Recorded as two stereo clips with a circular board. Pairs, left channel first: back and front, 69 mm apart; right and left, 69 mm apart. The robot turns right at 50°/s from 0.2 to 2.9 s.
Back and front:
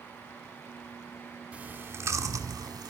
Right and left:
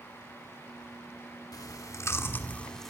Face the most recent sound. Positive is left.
turn(degrees=-5)